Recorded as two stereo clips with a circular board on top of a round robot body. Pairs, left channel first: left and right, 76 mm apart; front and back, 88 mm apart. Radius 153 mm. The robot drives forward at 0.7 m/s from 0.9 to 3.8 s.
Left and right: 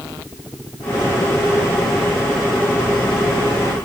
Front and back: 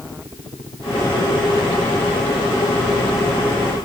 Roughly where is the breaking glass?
No breaking glass in this recording.